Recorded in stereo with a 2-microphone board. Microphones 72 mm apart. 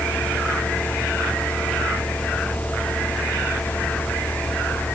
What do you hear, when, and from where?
Only background noise.